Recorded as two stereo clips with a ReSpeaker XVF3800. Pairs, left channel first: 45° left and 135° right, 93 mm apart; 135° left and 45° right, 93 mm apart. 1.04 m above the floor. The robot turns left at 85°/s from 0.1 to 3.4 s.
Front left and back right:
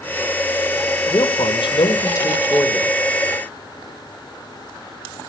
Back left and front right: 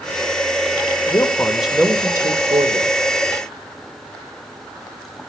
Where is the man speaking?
90° left, 2.0 m; by 3.0 s 75° right, 2.0 m.